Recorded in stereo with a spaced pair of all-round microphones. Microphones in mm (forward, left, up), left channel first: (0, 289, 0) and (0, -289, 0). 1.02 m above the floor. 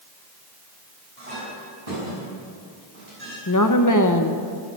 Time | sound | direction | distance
1.2 | a clink | 80° right | 6 m
3.5 | a woman speaking | 30° left (ahead or behind) | 0.9 m